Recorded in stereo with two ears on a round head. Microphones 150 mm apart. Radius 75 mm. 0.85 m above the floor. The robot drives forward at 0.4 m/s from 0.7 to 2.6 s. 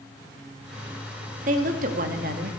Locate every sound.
1.5 s a woman speaking: 50° right (ahead or behind), 1.5 m; by 2.5 s 60° right (ahead or behind), 1.3 m